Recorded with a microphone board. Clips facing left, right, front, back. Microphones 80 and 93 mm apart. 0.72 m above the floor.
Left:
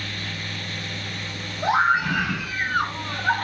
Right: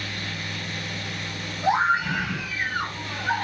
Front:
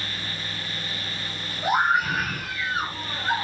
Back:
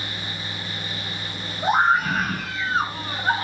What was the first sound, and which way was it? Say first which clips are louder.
A scream: left 2 dB, back 3 dB; 120° left.